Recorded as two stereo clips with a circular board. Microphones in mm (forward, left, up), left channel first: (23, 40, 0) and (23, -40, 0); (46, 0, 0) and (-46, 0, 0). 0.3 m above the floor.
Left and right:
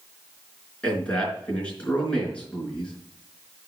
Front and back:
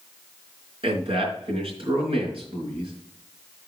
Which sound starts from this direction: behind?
A man speaking, at 0.8 s.